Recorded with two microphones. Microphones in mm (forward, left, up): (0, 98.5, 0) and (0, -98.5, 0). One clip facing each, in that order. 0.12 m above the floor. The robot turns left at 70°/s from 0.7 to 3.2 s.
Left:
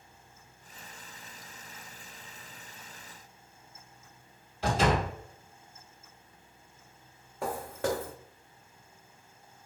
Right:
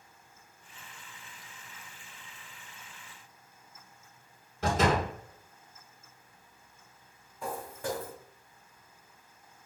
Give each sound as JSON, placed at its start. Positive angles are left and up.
{"t": 4.6, "sound": "a door slam", "side_deg": -50, "distance_m": 1.9}
{"t": 7.4, "sound": "footsteps", "side_deg": 75, "distance_m": 0.5}